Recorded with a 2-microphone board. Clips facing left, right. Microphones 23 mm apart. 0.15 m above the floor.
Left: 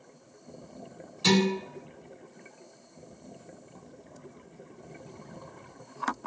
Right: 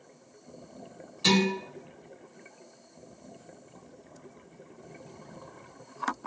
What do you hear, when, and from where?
1.2 s dishes clattering: 5° right (ahead or behind), 1.1 m